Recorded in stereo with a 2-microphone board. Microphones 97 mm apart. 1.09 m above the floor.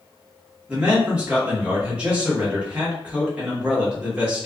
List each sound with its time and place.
0.7 s a man speaking: 15° right (ahead or behind), 1.2 m